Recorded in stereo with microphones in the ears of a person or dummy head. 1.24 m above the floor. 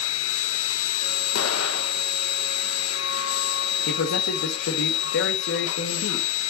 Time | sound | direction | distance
0.0 | a machine running | 70° left (ahead or behind) | 1.1 m
1.4 | an explosion | 75° left (ahead or behind) | 1.0 m
3.9 | a man speaking | 55° left (ahead or behind) | 1.2 m